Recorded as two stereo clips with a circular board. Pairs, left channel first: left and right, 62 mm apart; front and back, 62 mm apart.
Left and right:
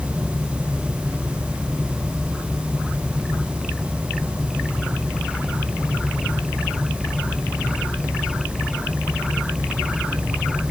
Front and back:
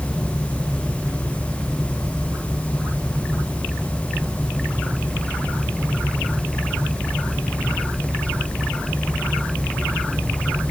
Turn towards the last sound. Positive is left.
No sound to turn to.